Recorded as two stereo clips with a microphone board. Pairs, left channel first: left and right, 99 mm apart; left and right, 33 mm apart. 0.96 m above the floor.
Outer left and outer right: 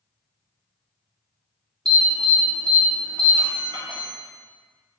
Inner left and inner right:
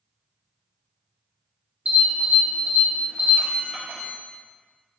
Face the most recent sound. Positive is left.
turn(degrees=-55)  # may be behind; listen again after turning